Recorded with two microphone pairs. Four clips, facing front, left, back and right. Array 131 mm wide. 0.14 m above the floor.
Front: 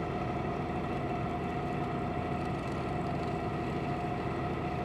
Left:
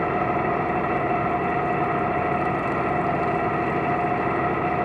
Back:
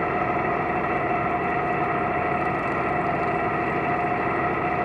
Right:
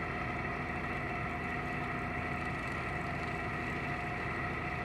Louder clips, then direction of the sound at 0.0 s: Left 16 dB, back 11 dB; 130° left.